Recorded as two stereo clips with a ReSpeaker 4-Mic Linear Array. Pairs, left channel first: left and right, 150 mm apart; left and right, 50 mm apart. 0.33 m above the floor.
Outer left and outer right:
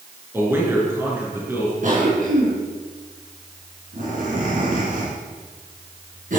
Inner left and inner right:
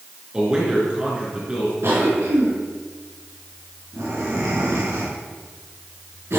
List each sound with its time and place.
0.3 s a man speaking: 15° right (ahead or behind), 4.5 m
1.8 s a cough: 60° right (ahead or behind), 3.5 m